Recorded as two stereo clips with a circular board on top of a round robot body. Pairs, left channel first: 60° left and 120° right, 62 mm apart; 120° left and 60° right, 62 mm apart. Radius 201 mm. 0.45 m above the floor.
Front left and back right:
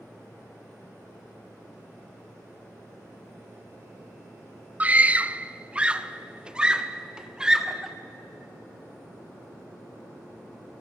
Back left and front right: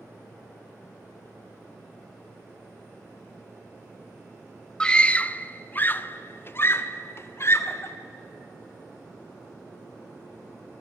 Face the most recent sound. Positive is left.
turn(degrees=160)